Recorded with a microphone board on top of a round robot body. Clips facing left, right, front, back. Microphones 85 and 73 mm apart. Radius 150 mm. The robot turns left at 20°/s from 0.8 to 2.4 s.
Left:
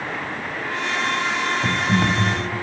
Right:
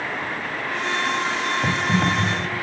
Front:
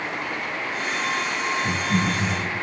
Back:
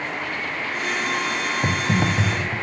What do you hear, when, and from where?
1.6 s typing on a keyboard: 165° right, 2.5 m; by 2.5 s straight behind, 2.5 m